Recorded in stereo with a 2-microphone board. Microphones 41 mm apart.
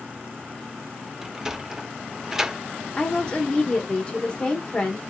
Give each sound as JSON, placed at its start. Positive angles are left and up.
{"t": 1.2, "sound": "a sliding door", "side_deg": -10, "distance_m": 0.5}
{"t": 3.0, "sound": "a woman speaking", "side_deg": 20, "distance_m": 0.8}